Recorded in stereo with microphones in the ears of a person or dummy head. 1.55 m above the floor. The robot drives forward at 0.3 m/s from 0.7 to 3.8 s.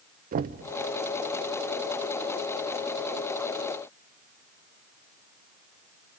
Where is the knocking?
45° right (ahead or behind), 0.5 m.